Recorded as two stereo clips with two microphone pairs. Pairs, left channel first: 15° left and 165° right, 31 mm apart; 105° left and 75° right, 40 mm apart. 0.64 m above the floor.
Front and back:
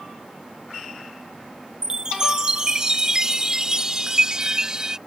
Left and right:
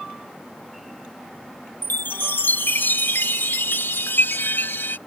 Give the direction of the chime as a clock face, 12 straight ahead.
8 o'clock.